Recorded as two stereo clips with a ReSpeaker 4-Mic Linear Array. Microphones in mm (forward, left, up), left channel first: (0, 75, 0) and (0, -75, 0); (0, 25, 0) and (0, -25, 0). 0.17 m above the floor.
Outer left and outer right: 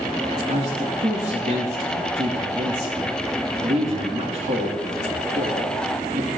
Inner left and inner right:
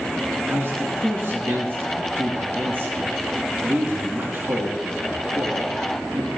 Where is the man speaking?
50° right (ahead or behind), 3 m.